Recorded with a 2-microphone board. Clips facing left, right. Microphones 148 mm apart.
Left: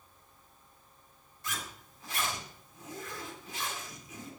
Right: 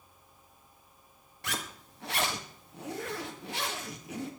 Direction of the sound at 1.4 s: 75° right (ahead or behind).